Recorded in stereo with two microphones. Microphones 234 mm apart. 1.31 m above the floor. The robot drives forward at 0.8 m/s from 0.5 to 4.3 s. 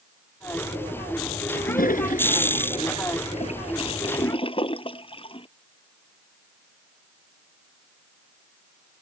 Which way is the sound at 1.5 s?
40° left (ahead or behind).